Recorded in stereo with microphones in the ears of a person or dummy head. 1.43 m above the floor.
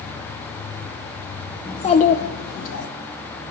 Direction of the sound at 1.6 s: 20° left (ahead or behind).